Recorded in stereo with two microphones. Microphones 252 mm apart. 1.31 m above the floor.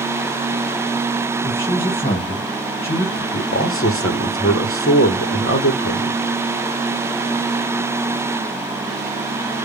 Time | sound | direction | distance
1.4 | a man speaking | 30° left (ahead or behind) | 1.6 m
3.3 | a man speaking | 60° left (ahead or behind) | 0.7 m